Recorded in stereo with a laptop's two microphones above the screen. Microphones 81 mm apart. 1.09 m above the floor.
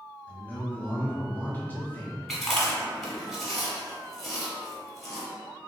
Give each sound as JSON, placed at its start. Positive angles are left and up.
{"t": 0.3, "sound": "a man speaking", "side_deg": 20, "distance_m": 0.8}
{"t": 2.3, "sound": "chewing", "side_deg": 5, "distance_m": 1.3}